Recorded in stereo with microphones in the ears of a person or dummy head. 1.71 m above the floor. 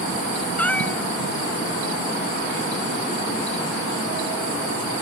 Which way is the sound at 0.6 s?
5° left (ahead or behind).